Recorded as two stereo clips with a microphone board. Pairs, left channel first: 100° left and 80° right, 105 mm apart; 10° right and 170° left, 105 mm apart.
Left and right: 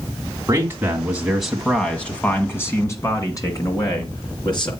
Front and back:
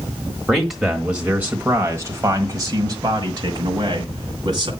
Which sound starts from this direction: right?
A man speaking, at 0.5 s.